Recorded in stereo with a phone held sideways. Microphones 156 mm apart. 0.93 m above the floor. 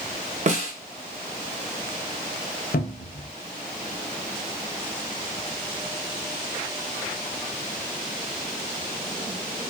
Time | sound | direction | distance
0.5 | a snare drum | 50° right (ahead or behind) | 0.6 m
2.7 | a cupboard door | 70° left (ahead or behind) | 0.6 m